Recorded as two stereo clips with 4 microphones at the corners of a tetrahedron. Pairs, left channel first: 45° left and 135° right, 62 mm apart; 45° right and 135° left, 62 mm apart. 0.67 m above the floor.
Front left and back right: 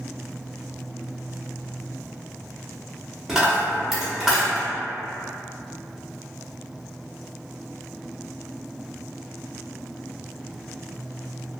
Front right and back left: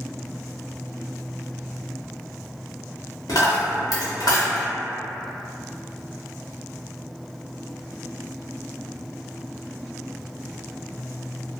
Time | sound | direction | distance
3.3 | a dropped coin | 55° right | 0.8 m